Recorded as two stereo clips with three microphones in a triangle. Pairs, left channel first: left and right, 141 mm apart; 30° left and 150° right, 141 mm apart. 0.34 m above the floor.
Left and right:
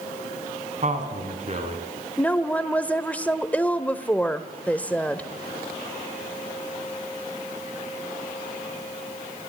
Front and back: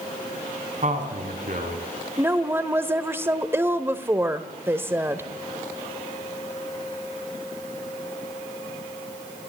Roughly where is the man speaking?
Behind right.